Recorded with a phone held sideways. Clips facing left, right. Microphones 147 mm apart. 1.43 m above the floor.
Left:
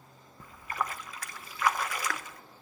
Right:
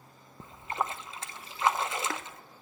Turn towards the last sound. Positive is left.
turn(degrees=-25)  # may be behind; listen again after turning